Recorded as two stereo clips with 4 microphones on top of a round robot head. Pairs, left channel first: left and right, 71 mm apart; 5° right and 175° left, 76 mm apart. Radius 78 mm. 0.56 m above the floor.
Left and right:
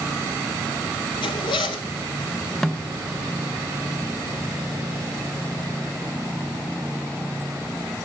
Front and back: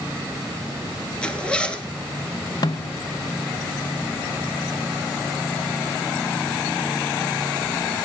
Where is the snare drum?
5° left, 0.9 m.